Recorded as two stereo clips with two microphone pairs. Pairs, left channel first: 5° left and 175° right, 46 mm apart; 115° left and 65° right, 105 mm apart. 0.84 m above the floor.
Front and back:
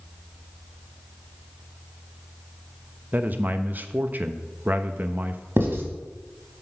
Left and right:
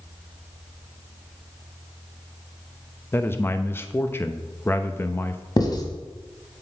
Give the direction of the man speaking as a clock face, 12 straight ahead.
6 o'clock.